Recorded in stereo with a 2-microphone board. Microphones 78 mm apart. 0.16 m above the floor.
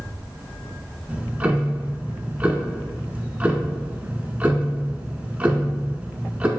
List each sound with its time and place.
1.1 s ticking: 20° right (ahead or behind), 0.6 m